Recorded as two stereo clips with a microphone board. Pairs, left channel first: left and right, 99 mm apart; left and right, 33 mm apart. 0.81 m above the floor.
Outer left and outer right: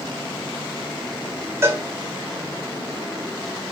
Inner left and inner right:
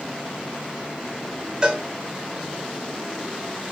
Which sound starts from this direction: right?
A cowbell, at 1.6 s.